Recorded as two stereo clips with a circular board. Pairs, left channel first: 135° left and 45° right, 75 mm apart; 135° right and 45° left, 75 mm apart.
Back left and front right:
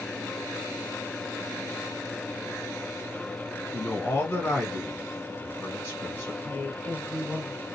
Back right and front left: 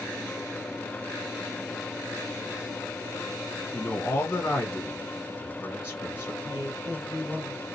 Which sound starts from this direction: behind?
A man speaking, at 3.7 s.